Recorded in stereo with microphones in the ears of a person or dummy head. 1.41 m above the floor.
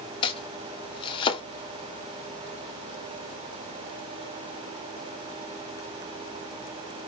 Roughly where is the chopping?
Left.